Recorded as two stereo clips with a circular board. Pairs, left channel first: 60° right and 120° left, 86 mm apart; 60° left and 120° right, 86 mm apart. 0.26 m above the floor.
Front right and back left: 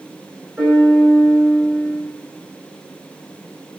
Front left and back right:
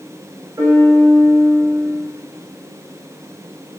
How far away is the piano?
About 4 m.